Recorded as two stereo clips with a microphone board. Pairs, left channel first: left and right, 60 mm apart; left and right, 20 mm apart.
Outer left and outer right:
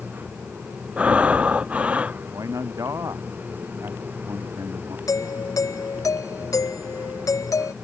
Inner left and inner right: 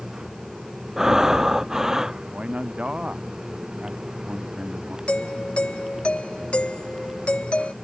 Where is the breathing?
20° right (ahead or behind).